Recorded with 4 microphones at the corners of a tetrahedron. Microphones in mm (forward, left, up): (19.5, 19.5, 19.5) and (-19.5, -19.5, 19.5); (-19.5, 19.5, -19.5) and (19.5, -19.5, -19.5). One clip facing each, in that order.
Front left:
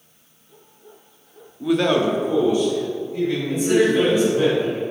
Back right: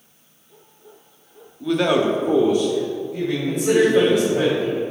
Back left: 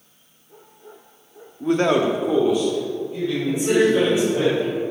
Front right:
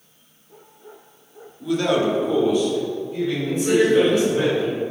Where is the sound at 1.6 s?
110° left, 0.9 m; by 4.5 s 115° right, 3.5 m.